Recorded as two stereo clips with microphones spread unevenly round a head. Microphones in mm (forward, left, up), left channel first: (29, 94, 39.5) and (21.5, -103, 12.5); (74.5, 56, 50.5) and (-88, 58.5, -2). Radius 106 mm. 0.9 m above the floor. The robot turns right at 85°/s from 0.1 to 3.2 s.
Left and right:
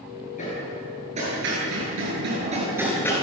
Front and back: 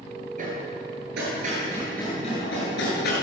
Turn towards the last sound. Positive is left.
turn(degrees=20)